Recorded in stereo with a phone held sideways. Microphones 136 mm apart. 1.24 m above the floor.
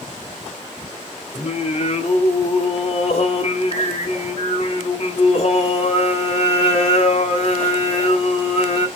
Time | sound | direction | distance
1.3 | singing | 50° left (ahead or behind) | 1.2 m